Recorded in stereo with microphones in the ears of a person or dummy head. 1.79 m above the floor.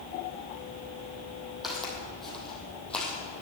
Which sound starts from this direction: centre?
Footsteps, at 1.6 s.